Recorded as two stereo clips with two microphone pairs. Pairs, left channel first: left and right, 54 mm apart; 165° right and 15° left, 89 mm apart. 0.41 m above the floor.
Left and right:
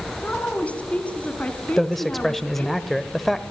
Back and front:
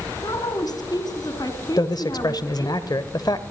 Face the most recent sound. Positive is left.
turn(degrees=180)